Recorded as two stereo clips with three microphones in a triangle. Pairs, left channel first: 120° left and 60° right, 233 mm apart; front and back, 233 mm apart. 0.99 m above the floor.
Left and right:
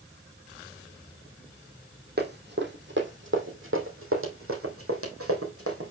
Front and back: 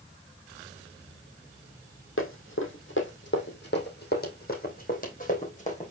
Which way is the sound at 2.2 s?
20° right.